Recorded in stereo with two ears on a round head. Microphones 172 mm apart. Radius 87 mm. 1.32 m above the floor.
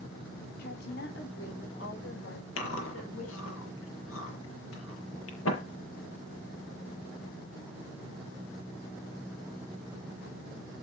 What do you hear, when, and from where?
0.6 s a woman speaking: 55° left (ahead or behind), 3 m; by 3.6 s 70° left (ahead or behind), 7.5 m
2.6 s chewing: 75° left (ahead or behind), 7.5 m